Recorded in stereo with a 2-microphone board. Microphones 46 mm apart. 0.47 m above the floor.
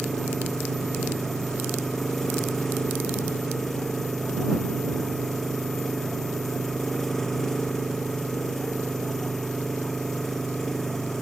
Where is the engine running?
5° left (ahead or behind).